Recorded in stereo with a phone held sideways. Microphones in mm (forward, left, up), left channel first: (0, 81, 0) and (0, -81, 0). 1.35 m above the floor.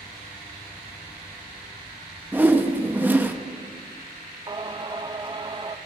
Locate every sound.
2.3 s a whoosh: 10° right (ahead or behind), 0.8 m
4.5 s singing: 30° right (ahead or behind), 0.6 m